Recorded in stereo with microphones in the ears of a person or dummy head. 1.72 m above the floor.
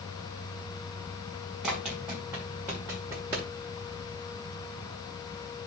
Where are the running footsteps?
Centre (ahead or behind), 1.9 m; by 3.5 s 5° left (ahead or behind), 1.7 m.